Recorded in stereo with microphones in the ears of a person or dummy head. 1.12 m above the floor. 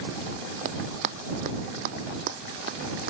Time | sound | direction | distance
0.7 | running footsteps | 50° right (ahead or behind) | ?